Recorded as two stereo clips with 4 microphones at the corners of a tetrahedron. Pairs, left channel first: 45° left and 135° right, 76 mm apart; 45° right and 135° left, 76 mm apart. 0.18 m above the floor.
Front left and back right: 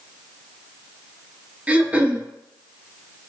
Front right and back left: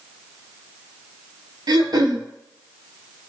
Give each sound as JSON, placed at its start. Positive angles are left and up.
{"t": 1.7, "sound": "throat clearing", "azimuth_deg": 155, "distance_m": 0.6}